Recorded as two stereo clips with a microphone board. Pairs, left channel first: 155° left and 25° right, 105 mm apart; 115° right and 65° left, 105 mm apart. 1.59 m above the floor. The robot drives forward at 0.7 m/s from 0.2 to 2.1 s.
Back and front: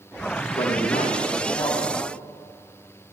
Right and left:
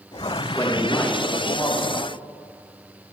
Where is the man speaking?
175° left, 2 m.